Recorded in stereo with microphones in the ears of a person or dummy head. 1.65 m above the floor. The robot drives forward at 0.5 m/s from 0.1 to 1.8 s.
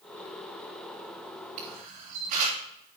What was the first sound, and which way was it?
A camera shutter, 45° right (ahead or behind).